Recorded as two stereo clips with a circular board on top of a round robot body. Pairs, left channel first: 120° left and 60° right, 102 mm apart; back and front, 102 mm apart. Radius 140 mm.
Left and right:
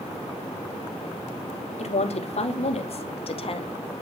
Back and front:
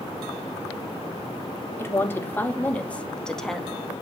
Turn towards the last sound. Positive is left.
turn(degrees=90)